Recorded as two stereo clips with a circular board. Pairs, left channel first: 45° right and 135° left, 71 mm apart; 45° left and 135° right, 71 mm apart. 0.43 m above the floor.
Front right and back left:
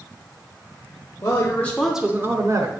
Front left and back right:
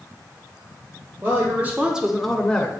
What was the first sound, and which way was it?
A woman speaking, 80° right.